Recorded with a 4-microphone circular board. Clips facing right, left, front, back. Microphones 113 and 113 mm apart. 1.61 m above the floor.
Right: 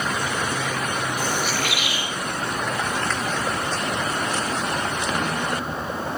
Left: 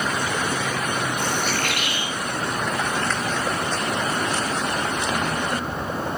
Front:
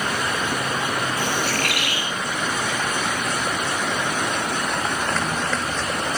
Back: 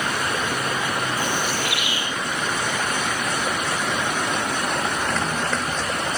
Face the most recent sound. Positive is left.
turn(degrees=0)